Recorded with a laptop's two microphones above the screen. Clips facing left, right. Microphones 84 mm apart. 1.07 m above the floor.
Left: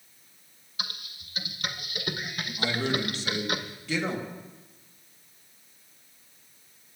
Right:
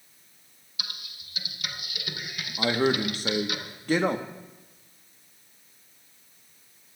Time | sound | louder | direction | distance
0.8 | typing on a keyboard | left 2 dB | 40° left (ahead or behind) | 1.1 m
2.6 | a man speaking | right 5 dB | 50° right (ahead or behind) | 1.0 m